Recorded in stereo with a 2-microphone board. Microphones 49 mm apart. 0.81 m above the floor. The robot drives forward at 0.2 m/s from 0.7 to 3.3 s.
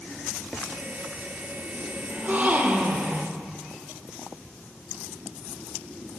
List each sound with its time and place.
2.1 s a gasp: 35° right (ahead or behind), 0.7 m